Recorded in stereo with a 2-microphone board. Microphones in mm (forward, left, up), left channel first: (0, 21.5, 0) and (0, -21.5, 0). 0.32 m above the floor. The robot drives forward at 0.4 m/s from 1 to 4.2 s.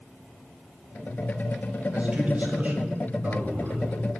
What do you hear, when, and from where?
1.9 s a man speaking: 35° right (ahead or behind), 1.6 m; by 3.9 s 40° right (ahead or behind), 1.4 m